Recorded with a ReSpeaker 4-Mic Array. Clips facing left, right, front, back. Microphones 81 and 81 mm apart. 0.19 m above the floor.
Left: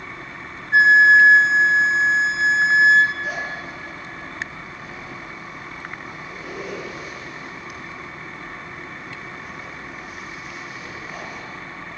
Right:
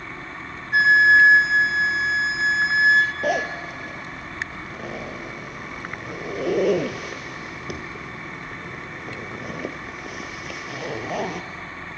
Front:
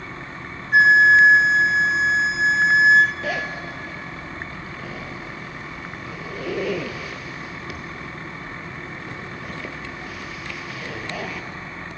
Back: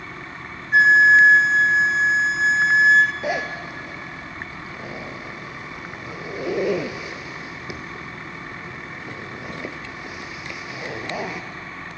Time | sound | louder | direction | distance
0.7 | a flute | left 3 dB, even | 85° left | 1.1 m
3.2 | a zipper | right 5 dB, back 1 dB | 110° right | 1.5 m